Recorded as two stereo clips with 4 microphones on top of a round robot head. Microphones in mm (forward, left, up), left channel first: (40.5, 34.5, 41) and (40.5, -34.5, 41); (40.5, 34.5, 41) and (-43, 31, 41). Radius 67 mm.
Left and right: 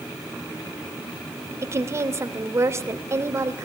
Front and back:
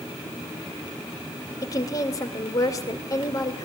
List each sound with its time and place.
1.6 s a woman speaking: 45° right, 2.5 m